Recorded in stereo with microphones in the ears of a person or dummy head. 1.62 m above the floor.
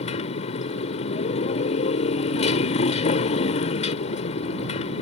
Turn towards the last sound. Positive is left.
turn(degrees=40)  # may be behind; listen again after turning